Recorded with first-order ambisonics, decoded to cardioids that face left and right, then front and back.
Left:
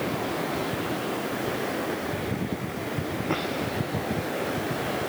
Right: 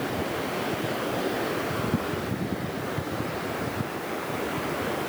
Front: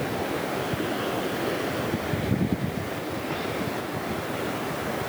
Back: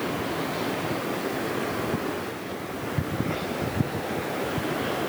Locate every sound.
Only background noise.